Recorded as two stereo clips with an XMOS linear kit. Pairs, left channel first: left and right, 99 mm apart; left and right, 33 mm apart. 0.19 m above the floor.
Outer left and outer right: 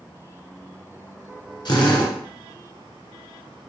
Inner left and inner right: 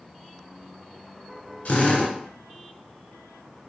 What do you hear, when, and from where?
1.6 s a drill: 50° left (ahead or behind), 1.4 m